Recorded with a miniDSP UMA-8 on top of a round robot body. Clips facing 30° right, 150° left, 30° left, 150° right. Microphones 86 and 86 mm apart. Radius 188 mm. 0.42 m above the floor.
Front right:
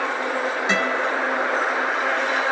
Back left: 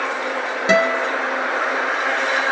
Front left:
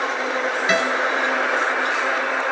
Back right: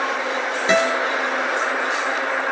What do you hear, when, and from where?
0.7 s a guitar: 150° left, 0.9 m